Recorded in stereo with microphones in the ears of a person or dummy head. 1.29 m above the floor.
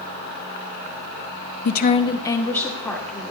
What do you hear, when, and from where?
1.6 s a woman speaking: 60° left (ahead or behind), 0.7 m; by 3.3 s centre (ahead or behind), 2.5 m